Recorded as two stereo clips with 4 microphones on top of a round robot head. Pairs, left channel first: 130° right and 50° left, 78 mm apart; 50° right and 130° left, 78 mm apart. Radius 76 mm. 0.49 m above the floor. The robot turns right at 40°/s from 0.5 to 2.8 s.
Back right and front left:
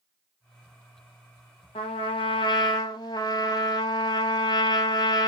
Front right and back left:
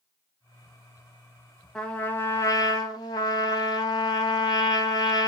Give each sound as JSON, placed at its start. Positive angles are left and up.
{"t": 1.8, "sound": "a trumpet", "azimuth_deg": -130, "distance_m": 0.6}